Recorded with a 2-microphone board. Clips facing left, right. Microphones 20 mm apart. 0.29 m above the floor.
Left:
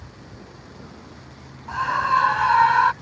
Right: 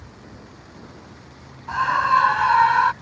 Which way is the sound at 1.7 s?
15° right (ahead or behind).